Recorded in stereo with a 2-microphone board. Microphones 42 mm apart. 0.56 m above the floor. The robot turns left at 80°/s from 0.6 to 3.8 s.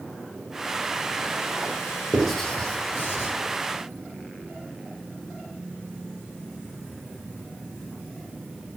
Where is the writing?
15° right (ahead or behind), 3.5 m; by 3.3 s 75° left (ahead or behind), 3.5 m.